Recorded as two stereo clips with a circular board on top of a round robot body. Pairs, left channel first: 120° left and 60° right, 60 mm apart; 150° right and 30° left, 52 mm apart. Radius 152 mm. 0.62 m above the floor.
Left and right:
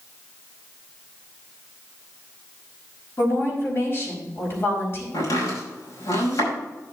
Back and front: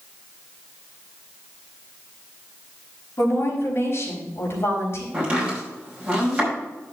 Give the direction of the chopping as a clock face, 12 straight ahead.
9 o'clock.